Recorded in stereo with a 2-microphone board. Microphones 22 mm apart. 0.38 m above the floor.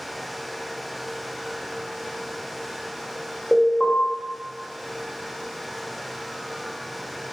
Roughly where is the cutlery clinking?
I don't hear cutlery clinking.